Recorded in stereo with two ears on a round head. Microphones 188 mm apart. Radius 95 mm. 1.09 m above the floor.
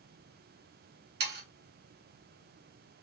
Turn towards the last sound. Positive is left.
turn(degrees=-50)  # may be behind; listen again after turning